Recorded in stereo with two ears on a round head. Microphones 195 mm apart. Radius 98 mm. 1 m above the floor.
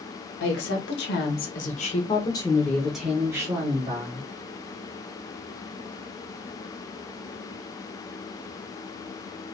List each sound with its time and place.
0.4 s a woman speaking: 60° left (ahead or behind), 1.5 m; by 4.3 s 30° right (ahead or behind), 1.4 m